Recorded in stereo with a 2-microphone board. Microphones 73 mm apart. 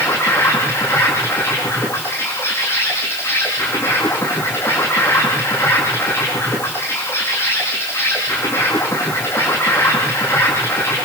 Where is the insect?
35° left (ahead or behind), 9.5 m.